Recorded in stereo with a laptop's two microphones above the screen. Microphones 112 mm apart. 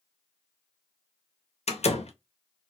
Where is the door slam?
75° left (ahead or behind), 0.5 m.